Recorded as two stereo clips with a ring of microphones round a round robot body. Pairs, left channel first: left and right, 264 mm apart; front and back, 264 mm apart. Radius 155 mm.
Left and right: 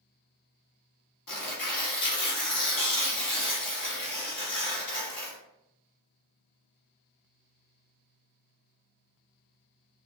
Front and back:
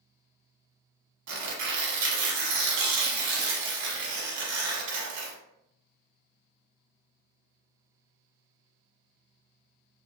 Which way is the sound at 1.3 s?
140° left.